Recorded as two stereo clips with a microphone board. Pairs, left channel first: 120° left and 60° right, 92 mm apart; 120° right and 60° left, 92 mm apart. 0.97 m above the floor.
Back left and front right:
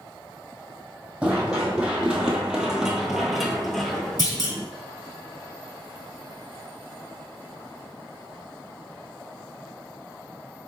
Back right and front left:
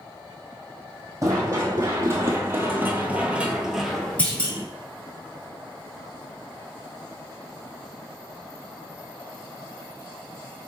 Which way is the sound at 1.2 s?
15° left.